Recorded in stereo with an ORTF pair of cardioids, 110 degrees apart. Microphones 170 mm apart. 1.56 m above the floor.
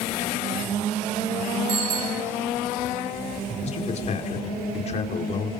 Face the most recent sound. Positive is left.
turn(degrees=40)